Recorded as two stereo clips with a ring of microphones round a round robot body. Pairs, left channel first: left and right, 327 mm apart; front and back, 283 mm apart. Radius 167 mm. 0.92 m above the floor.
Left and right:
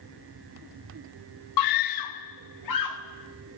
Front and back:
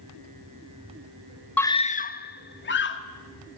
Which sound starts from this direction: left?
A scream, at 1.6 s.